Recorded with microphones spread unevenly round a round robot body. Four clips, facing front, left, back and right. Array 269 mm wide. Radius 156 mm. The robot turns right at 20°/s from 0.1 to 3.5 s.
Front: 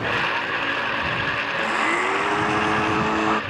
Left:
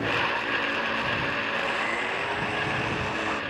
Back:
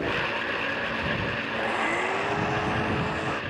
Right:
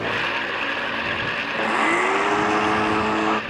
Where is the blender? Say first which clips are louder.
Right 8 dB, front 4 dB; 75° right; by 3.4 s 35° right.